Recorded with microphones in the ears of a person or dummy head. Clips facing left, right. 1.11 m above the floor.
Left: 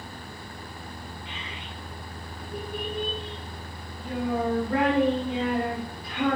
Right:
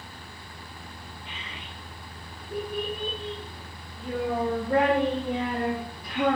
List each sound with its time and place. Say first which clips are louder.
1.2 s a child speaking: left 3 dB; 60° right (ahead or behind), 3 m; by 6.4 s 45° right (ahead or behind), 6 m